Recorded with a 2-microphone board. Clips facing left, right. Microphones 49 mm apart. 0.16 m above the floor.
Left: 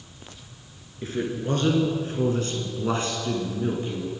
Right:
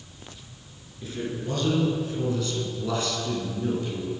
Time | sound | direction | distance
1.0 | a man speaking | 40° left (ahead or behind) | 3 m